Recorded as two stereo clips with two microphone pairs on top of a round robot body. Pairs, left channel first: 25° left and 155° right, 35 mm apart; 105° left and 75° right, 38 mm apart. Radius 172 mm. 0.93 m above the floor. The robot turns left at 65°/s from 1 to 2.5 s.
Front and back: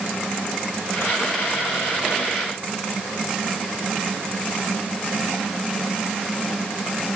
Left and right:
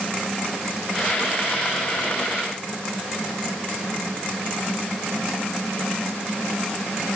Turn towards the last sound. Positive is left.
No sound to turn to.